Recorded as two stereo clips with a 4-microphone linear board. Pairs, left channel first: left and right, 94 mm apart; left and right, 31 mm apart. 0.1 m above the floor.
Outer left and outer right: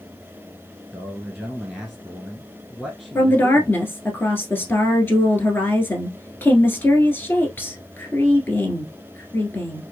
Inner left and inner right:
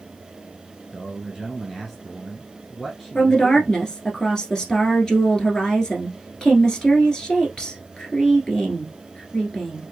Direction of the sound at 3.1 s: 25° left (ahead or behind).